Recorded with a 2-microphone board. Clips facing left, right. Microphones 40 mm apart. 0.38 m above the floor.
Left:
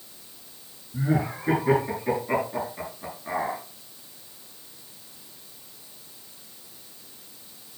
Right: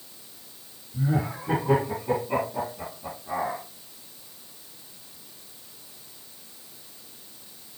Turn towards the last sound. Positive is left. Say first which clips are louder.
# left 2 dB
turn(degrees=80)